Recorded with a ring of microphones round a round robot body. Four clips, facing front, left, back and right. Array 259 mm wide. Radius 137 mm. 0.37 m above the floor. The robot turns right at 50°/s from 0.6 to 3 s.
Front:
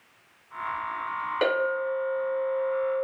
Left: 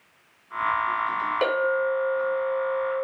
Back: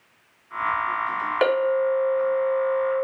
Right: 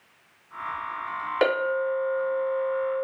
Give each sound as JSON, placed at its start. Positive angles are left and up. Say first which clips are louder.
{"t": 1.4, "sound": "a clink", "louder": "right 1 dB, back 5 dB", "azimuth_deg": -145, "distance_m": 1.0}